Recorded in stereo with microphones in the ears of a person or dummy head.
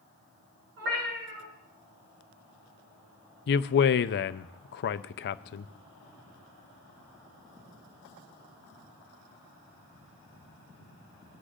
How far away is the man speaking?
About 0.5 m.